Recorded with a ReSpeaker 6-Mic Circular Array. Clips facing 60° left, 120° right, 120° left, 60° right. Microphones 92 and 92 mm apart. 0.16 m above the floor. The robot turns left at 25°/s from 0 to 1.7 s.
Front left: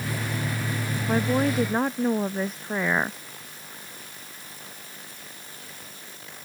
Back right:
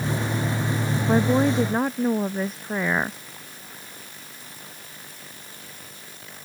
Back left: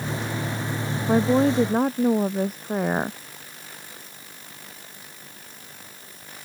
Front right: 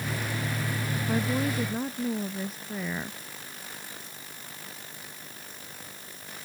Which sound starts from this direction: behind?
A woman speaking, at 1.1 s.